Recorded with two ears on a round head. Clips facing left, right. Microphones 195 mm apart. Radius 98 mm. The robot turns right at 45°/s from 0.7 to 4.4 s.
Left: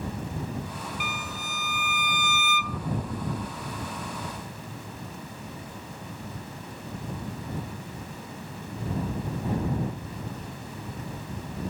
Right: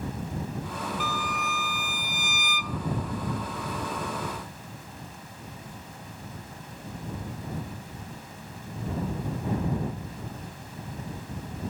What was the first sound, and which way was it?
A violin, 10° left.